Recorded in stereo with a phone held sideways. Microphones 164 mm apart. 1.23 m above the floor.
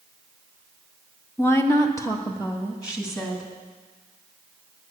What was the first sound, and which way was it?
A woman speaking, 15° left (ahead or behind).